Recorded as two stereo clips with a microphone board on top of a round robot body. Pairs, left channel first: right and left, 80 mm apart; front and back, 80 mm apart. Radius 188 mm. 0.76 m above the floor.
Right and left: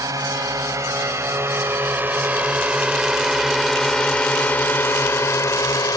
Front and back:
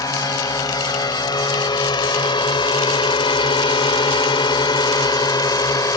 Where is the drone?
45° left; by 6.0 s 45° right.